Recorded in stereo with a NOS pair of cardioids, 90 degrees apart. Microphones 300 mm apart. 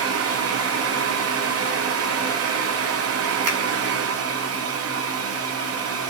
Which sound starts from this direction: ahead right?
A fan, at 0.0 s.